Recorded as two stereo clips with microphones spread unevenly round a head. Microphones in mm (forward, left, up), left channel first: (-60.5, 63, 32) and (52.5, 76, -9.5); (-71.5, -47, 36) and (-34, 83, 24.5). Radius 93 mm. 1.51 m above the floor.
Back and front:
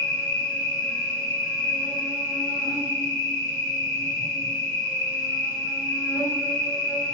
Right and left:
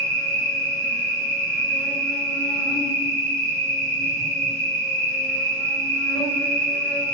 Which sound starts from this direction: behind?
An insect, at 0.0 s.